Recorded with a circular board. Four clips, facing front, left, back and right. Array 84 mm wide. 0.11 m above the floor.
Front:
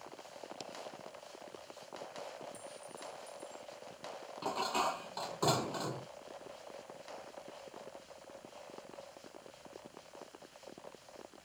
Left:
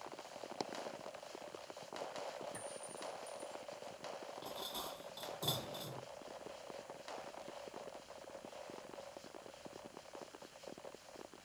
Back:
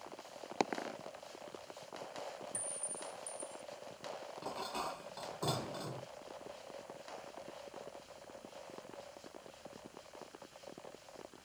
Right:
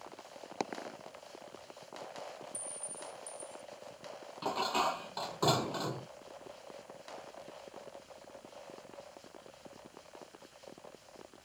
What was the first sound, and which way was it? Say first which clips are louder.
A dropped coin: right 6 dB, back 14 dB; 155° right.